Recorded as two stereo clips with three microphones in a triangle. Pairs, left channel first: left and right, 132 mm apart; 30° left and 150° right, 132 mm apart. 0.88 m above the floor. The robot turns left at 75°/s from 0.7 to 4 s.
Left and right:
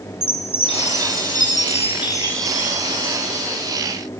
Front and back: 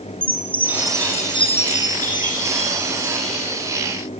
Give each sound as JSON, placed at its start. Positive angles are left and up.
{"t": 0.2, "sound": "a chime", "azimuth_deg": 135, "distance_m": 7.5}